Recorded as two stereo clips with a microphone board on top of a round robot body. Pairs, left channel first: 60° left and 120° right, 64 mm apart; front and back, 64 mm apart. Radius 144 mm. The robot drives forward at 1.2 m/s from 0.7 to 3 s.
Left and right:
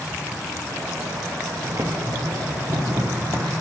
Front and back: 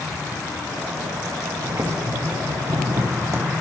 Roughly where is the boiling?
Behind right.